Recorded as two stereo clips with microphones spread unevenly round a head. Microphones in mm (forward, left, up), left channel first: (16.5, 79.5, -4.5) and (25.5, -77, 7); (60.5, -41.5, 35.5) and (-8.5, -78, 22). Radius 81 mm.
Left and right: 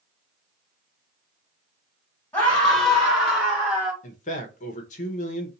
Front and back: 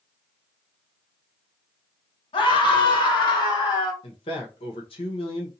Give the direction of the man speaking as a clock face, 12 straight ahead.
10 o'clock.